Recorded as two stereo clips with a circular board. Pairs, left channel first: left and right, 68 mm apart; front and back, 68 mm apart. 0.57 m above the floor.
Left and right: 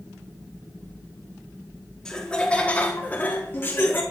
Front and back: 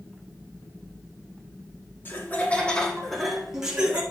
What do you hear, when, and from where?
2.0 s laughter: 20° left, 1.3 m; by 4.0 s 120° left, 1.4 m